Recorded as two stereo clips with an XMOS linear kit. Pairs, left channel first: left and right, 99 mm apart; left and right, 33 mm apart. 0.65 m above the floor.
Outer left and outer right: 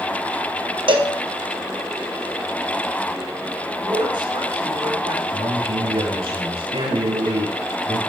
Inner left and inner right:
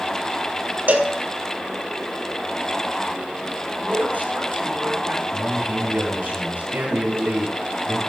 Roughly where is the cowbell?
Right.